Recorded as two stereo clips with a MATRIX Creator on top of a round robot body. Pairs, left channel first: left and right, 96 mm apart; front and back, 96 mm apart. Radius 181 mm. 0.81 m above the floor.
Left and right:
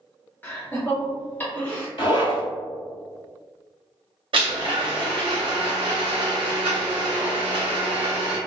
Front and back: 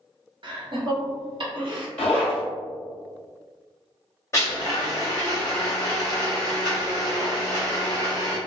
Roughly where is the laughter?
Behind left.